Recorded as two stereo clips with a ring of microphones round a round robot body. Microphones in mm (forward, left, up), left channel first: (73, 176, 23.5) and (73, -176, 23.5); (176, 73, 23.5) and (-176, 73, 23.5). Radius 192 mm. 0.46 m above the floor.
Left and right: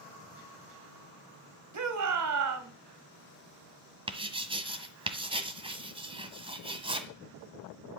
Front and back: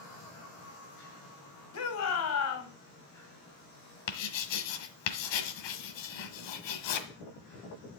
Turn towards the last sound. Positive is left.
turn(degrees=-15)